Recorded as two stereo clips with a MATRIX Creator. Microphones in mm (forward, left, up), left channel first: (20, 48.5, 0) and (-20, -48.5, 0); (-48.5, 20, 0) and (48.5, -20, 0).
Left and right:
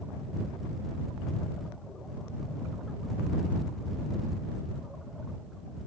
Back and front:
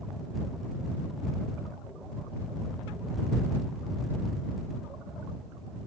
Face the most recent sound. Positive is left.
No sound to turn to.